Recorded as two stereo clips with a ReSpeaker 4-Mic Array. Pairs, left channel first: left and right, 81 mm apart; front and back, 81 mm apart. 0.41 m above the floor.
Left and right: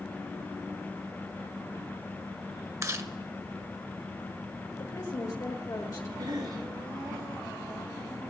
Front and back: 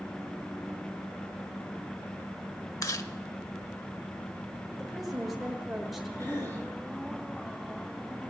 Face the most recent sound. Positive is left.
turn(degrees=-65)